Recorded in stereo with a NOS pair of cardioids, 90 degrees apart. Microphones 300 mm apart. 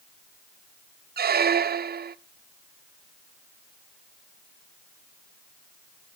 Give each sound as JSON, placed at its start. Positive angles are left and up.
{"t": 1.2, "sound": "a squeak", "azimuth_deg": -30, "distance_m": 0.6}